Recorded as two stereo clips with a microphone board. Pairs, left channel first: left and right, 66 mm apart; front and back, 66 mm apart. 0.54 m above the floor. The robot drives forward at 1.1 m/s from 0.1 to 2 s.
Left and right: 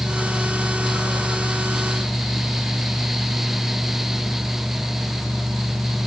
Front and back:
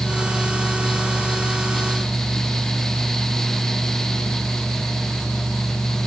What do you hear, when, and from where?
Only background noise.